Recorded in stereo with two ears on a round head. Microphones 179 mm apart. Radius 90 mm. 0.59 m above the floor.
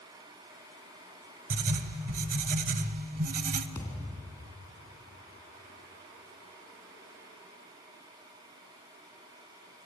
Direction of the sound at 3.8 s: 10° left (ahead or behind).